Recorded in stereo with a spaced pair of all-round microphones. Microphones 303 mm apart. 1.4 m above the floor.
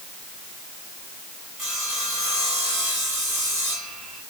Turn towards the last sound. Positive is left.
turn(degrees=80)